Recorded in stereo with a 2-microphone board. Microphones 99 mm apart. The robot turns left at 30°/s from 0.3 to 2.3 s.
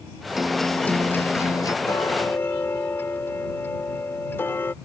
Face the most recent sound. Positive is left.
turn(degrees=25)  # may be behind; listen again after turning